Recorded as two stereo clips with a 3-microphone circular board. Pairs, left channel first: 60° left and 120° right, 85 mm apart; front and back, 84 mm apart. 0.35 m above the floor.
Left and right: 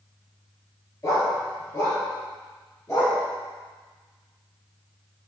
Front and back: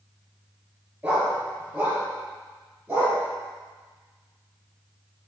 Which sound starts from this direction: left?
A dog barking, at 1.0 s.